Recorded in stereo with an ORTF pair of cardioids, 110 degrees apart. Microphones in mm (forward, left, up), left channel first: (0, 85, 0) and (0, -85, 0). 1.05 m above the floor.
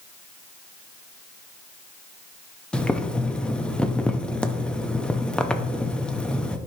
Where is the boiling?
5° left, 0.7 m.